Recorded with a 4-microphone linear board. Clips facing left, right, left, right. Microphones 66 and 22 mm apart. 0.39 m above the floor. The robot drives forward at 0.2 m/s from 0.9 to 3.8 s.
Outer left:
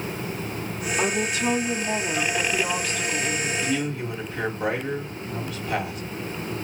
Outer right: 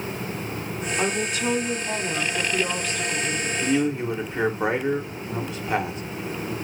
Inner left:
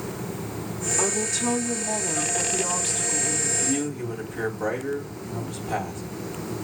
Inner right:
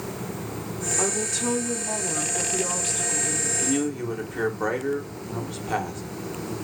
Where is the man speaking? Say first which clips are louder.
Outer right 4 dB, inner right 1 dB; 30° right (ahead or behind), 1.1 m.